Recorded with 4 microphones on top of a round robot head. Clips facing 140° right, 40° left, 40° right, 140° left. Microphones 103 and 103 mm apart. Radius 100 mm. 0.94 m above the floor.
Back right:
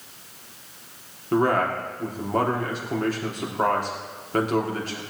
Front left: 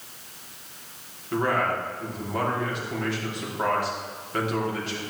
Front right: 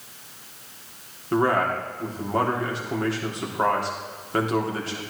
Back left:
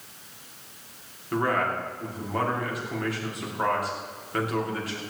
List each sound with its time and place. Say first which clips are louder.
1.3 s a man speaking: back right 3 dB, front right 4 dB; 100° right, 3.5 m